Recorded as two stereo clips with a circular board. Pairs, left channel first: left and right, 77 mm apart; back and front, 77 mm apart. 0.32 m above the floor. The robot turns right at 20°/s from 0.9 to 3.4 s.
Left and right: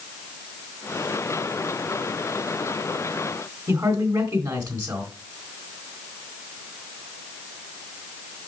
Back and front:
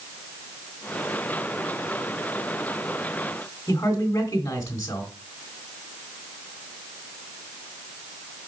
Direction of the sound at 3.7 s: 130° right.